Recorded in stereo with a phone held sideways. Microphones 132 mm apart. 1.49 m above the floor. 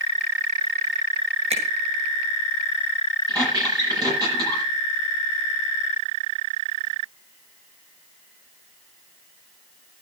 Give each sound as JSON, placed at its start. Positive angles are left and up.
{"t": 1.5, "sound": "a finger snap", "side_deg": -60, "distance_m": 6.5}
{"t": 3.3, "sound": "a squeak", "side_deg": -30, "distance_m": 9.5}